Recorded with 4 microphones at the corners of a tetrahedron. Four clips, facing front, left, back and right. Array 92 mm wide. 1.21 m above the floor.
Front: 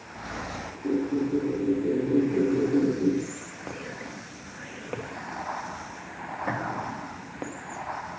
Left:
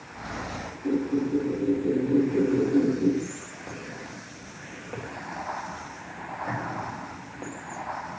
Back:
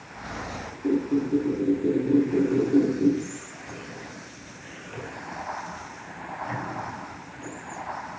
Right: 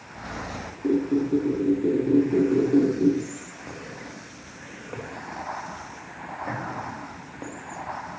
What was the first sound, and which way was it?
A squeak, 115° right.